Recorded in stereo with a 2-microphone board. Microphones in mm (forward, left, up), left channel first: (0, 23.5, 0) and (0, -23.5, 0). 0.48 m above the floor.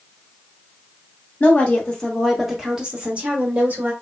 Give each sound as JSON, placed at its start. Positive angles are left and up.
{"t": 1.4, "sound": "a woman speaking", "side_deg": 35, "distance_m": 1.0}